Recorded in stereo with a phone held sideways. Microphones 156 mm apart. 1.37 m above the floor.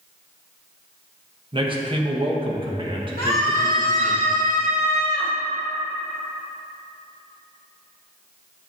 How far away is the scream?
About 1.1 m.